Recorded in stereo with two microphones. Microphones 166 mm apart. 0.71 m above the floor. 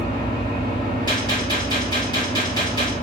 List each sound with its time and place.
0.0 s an engine running: 25° left (ahead or behind), 3 m
1.1 s a gunshot: 25° left (ahead or behind), 3.5 m